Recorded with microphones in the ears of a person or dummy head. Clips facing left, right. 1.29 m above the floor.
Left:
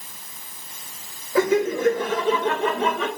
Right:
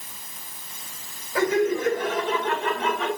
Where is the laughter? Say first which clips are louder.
Left 2 dB; 90° left, 5.5 m; by 3.1 s 80° left, 5 m.